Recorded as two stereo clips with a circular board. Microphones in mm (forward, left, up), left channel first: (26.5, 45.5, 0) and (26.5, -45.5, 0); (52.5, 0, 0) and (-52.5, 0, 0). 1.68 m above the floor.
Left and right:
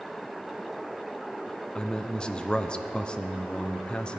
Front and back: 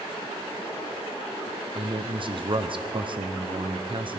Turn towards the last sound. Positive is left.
turn(degrees=165)